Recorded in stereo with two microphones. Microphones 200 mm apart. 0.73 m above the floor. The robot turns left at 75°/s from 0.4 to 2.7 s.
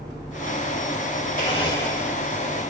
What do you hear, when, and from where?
1.4 s a blender: 45° left, 2 m; by 2.6 s 50° right, 2 m